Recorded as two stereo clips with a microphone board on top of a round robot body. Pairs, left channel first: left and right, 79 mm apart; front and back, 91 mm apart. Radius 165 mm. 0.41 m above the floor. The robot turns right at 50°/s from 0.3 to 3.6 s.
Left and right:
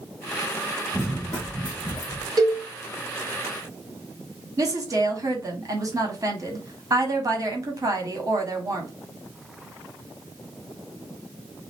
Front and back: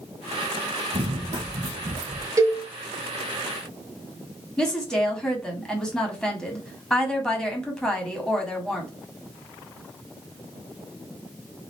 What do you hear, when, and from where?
0.9 s running footsteps: 175° left, 0.5 m; by 2.3 s 155° left, 1.2 m
2.4 s a cowbell: 125° right, 1.2 m; by 2.6 s 115° right, 1.2 m
4.6 s a woman speaking: 80° right, 1.7 m